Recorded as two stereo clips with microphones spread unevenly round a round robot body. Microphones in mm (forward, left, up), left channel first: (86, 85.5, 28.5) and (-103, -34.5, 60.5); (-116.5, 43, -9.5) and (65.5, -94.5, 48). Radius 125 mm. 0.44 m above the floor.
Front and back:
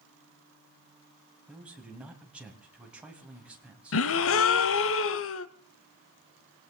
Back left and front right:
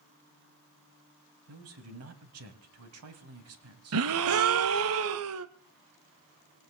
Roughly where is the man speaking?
Ahead right.